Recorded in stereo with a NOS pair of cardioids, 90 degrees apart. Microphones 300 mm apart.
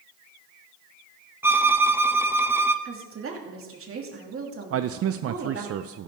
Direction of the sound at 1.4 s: 5° right.